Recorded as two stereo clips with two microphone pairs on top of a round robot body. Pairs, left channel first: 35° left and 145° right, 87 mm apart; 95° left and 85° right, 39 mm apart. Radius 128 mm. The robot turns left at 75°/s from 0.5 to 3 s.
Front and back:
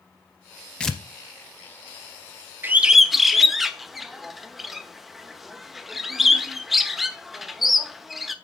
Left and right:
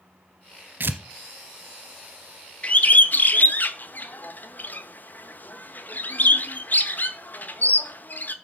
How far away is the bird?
About 1.2 m.